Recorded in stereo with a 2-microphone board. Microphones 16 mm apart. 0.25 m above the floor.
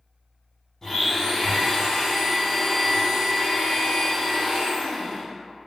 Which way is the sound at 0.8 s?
20° left (ahead or behind).